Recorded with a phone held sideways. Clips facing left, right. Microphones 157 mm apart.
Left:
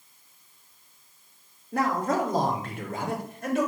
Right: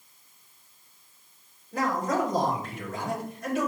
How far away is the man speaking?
About 3 m.